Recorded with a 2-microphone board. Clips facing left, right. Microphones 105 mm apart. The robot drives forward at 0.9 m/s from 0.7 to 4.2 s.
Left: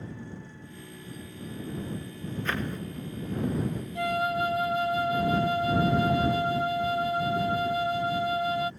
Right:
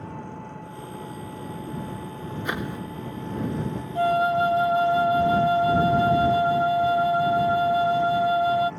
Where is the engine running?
60° right (ahead or behind); by 8.8 s 85° right.